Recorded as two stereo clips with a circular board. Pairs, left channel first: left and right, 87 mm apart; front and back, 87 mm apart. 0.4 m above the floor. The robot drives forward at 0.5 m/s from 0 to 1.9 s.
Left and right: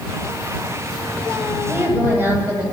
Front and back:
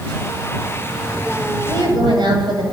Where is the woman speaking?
155° right, 9.5 m.